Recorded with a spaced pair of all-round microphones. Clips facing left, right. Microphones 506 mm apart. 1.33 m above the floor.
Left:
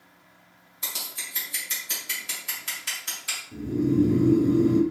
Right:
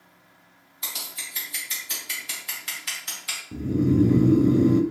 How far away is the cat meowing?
No cat meowing in this recording.